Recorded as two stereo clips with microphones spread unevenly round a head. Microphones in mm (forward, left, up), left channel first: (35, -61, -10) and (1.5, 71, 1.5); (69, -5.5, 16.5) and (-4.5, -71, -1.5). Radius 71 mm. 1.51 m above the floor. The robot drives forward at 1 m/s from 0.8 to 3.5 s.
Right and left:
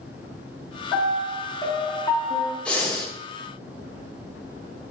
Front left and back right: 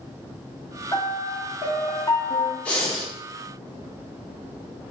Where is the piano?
5° right, 2.5 m; by 2.5 s 20° right, 0.7 m.